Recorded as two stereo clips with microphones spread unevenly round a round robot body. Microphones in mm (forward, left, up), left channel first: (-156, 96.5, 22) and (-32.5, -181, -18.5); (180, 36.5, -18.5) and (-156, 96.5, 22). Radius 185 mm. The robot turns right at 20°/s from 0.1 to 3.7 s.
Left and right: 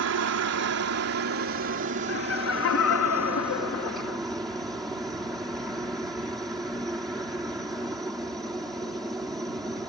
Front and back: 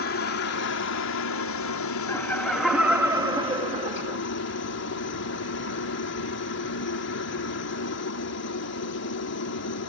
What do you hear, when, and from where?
0.0 s a helicopter: 55° right; by 9.9 s 15° left
2.1 s laughter: 60° left; by 4.2 s 95° left